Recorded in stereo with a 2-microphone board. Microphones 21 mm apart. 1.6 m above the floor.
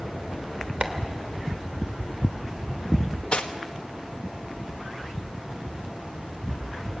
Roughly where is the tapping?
Right.